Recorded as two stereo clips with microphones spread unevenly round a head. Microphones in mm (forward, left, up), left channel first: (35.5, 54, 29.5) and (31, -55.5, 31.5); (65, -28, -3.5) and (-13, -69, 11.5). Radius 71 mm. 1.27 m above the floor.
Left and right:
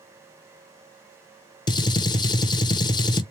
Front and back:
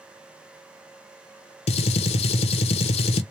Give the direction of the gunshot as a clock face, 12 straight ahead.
11 o'clock.